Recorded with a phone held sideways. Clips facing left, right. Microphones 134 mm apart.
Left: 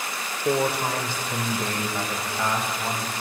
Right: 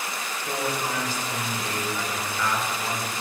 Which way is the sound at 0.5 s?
65° left (ahead or behind).